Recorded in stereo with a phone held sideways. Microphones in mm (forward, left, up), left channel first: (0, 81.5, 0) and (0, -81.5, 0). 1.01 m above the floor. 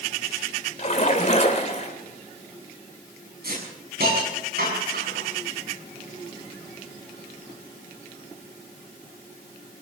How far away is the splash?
About 3 m.